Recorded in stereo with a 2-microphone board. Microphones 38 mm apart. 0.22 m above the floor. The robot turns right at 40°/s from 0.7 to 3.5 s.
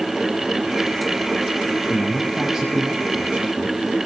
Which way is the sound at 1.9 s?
165° left.